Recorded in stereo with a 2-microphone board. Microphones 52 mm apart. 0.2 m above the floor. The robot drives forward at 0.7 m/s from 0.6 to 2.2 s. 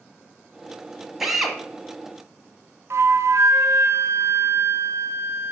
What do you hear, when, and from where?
1.2 s a drill: 5° right (ahead or behind), 1.1 m
2.9 s a flute: 60° right (ahead or behind), 0.6 m